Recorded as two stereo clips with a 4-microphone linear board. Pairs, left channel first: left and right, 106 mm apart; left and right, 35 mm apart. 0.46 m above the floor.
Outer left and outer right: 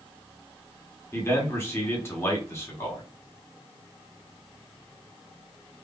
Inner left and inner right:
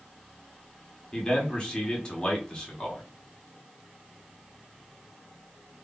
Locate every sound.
1.1 s a man speaking: 25° left (ahead or behind), 1.1 m